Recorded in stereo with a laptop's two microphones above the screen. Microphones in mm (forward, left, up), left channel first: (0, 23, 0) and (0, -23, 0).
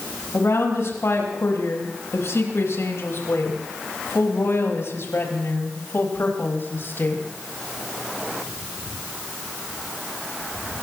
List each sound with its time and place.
0.3 s a woman speaking: 80° left, 5.5 m; by 7.3 s 55° left (ahead or behind), 6 m